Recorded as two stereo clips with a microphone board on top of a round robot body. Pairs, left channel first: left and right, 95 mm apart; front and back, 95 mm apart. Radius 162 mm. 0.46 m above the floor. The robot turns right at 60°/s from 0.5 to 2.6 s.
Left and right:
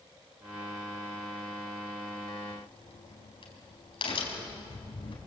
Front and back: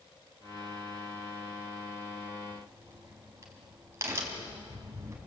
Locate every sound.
2.5 s a crack: 110° left, 4.5 m; by 5.2 s 115° left, 4.5 m